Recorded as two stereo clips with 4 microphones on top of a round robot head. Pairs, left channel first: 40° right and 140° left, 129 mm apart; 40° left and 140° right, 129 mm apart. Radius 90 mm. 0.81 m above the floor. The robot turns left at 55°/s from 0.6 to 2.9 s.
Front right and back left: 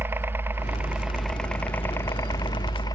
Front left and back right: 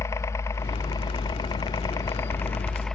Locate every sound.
0.0 s a helicopter: 85° left; by 3.0 s 45° right